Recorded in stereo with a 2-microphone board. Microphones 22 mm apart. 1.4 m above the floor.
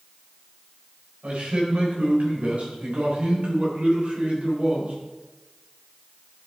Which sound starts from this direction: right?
A man speaking, at 1.2 s.